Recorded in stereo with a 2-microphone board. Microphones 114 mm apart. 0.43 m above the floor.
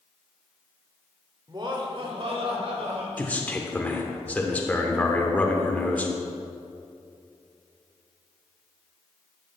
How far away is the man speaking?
About 0.9 m.